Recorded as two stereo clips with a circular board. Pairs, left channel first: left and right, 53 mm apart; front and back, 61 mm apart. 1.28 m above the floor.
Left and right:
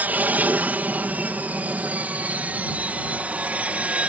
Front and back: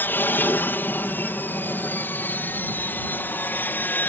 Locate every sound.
0.0 s an aircraft: 45° right; by 4.1 s 40° right